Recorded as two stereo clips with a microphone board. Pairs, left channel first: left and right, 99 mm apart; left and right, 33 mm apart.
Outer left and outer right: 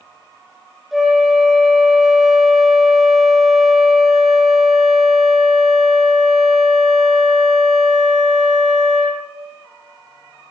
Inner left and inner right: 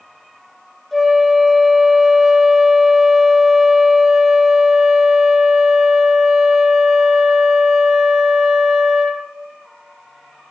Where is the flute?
Centre (ahead or behind), 1.0 m.